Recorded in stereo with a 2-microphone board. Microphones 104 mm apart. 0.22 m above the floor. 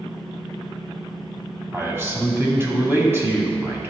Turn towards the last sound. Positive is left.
turn(degrees=-25)  # may be behind; listen again after turning